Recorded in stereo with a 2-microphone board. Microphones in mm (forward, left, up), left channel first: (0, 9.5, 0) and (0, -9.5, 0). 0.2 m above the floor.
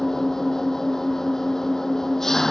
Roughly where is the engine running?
Left.